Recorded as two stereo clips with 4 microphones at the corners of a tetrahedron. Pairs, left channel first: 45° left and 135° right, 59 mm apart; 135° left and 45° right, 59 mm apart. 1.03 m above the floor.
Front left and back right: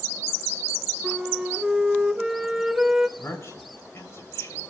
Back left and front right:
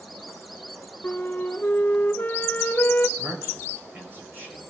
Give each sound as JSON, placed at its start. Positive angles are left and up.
{"t": 1.0, "sound": "a flute", "azimuth_deg": 155, "distance_m": 0.7}
{"t": 3.2, "sound": "a man speaking", "azimuth_deg": 10, "distance_m": 4.5}